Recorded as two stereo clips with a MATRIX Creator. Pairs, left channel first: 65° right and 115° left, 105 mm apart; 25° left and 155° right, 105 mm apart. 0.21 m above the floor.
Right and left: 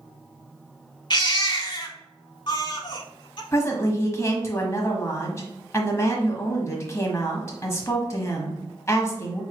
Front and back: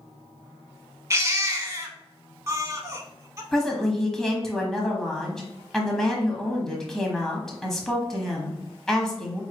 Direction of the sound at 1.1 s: 100° right.